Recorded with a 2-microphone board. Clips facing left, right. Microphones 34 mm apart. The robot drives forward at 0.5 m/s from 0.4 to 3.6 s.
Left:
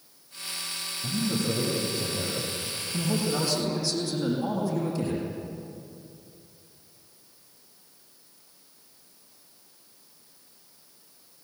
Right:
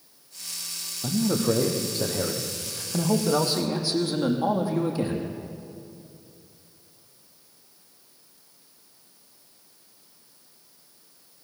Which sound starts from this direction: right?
A man speaking, at 1.0 s.